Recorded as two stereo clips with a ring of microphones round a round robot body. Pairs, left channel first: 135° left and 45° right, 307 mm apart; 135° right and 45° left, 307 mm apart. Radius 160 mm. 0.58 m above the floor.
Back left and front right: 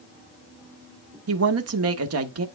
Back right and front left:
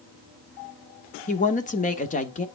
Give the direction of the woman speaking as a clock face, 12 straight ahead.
2 o'clock.